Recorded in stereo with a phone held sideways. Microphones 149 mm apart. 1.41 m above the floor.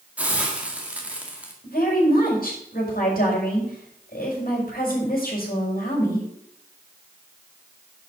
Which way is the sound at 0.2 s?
10° right (ahead or behind).